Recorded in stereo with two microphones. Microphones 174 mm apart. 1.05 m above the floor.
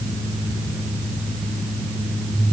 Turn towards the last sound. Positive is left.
No sound to turn to.